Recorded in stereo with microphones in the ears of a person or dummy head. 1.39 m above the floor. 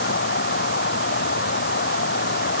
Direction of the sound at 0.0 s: 60° left (ahead or behind).